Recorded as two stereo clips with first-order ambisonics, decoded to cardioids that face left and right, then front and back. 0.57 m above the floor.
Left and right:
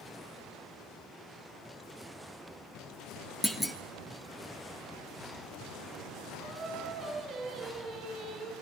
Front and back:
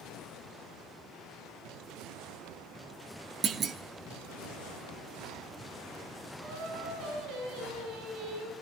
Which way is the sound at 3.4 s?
165° left.